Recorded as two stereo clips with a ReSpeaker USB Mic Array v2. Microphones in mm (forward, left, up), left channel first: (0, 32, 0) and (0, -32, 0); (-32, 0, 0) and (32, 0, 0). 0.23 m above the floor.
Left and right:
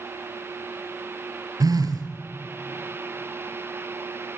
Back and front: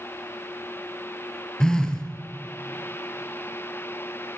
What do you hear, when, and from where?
1.6 s a phone buzzing: 100° right, 0.9 m